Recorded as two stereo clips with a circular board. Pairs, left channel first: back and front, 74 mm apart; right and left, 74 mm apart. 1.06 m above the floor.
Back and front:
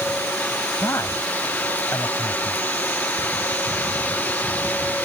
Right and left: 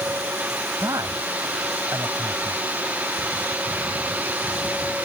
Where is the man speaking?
130° left.